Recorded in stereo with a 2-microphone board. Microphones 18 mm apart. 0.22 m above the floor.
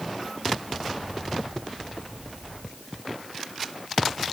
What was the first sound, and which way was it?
Only background noise.